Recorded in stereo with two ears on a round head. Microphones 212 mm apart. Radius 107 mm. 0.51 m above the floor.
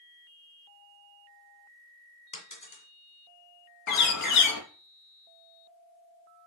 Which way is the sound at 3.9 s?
80° left.